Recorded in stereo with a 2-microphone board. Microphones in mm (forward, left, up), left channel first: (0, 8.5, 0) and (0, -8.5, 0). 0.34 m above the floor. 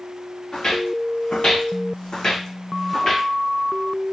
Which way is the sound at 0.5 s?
60° left (ahead or behind).